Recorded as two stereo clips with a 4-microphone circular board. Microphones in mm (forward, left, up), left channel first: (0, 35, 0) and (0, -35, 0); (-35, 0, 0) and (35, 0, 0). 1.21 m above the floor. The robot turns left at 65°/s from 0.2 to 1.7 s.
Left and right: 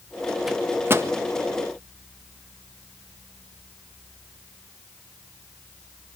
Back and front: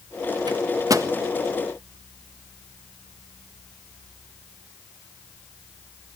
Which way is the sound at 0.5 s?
5° right.